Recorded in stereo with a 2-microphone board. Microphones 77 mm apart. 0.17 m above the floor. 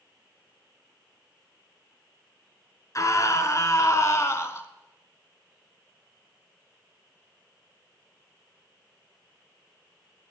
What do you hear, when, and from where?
3.0 s a scream: 45° left (ahead or behind), 2.5 m; by 4.7 s 35° left (ahead or behind), 1.6 m